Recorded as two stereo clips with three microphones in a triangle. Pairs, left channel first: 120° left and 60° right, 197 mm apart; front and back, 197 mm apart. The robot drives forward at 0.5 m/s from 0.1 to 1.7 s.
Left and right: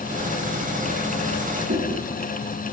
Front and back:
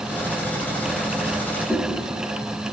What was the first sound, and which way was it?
Chewing, 95° right.